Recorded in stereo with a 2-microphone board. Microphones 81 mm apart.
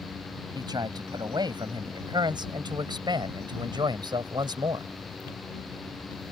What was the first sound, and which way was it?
A man speaking, 65° right (ahead or behind).